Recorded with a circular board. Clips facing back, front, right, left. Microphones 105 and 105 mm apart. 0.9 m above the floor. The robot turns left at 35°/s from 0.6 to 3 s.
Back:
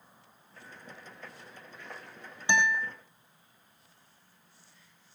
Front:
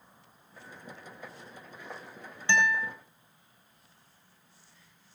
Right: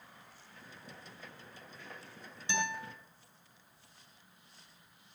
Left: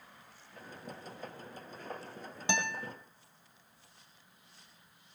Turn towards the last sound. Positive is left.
turn(degrees=90)